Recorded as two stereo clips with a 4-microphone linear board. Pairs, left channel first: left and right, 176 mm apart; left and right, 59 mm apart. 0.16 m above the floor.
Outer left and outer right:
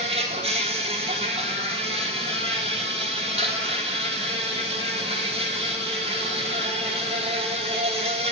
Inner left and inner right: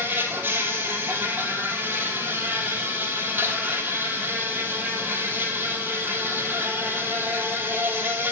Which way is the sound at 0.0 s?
35° right (ahead or behind).